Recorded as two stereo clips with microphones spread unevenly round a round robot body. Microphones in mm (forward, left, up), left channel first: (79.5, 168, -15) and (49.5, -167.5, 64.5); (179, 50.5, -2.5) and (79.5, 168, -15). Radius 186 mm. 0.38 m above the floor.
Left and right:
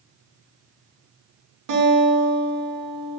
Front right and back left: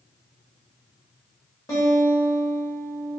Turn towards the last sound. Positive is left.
turn(degrees=-110)